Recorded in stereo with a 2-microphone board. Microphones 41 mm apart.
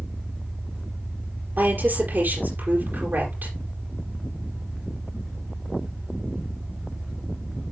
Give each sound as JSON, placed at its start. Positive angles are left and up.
{"t": 0.0, "sound": "an engine running", "side_deg": -55, "distance_m": 4.5}
{"t": 1.6, "sound": "a woman speaking", "side_deg": -55, "distance_m": 5.0}